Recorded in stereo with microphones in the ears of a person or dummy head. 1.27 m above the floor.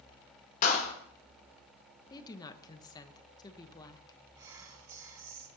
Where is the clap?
50° left (ahead or behind), 2.5 m.